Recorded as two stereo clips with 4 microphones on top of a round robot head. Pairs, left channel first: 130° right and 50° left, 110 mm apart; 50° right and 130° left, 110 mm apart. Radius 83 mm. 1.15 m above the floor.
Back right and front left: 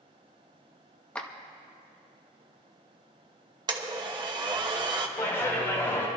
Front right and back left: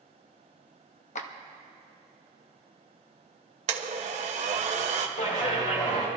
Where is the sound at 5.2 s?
60° right, 2.5 m.